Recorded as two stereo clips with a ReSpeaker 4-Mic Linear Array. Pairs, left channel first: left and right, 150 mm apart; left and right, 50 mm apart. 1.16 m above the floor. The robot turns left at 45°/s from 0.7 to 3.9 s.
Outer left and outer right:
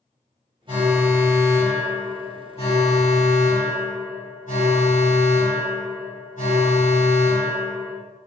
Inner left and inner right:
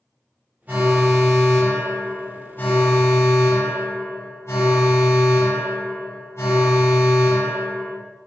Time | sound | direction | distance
0.7 | an alarm | 145° right | 4 m